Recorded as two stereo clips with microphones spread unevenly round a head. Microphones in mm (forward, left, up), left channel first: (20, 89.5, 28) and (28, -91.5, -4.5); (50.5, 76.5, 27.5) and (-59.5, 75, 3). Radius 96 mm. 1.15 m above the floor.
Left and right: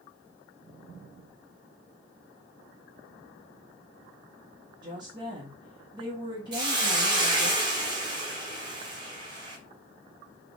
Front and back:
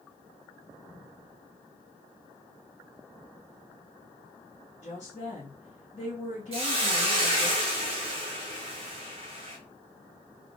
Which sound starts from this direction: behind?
A hiss, at 6.5 s.